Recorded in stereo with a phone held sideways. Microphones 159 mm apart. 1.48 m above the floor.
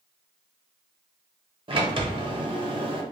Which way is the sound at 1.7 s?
35° right (ahead or behind).